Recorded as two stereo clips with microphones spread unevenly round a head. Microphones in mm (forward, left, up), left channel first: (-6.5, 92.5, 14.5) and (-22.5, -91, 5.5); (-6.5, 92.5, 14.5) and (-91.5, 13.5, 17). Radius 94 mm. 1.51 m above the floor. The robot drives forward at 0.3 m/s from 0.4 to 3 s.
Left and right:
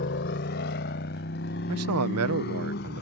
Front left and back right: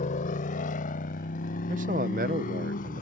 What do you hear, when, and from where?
0.0 s a motorcycle: 50° left; by 3.0 s 40° left
1.7 s a man speaking: 85° right; by 3.0 s 115° right